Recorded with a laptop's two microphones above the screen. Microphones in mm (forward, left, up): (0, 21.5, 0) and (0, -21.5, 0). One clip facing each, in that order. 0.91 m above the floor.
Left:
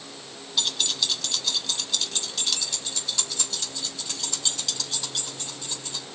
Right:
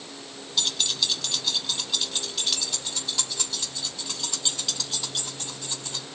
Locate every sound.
0.6 s keys jangling: 5° left (ahead or behind), 0.8 m; by 6.0 s 10° right (ahead or behind), 4 m